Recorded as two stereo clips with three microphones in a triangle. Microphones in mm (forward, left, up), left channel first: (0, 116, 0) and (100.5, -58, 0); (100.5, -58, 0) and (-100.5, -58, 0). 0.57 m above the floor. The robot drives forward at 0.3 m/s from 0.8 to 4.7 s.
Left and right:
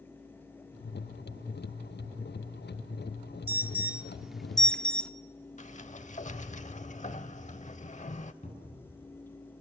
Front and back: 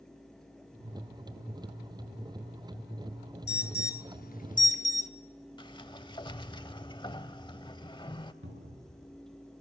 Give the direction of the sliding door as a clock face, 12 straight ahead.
10 o'clock.